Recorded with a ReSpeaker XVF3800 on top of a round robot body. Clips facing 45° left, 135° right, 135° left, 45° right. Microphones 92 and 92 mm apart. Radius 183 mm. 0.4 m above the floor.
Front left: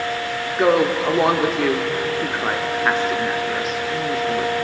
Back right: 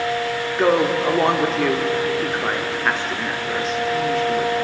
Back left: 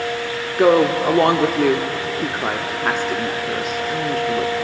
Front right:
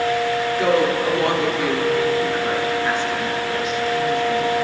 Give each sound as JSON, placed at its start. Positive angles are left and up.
{"t": 0.6, "sound": "a woman speaking", "azimuth_deg": 130, "distance_m": 1.5}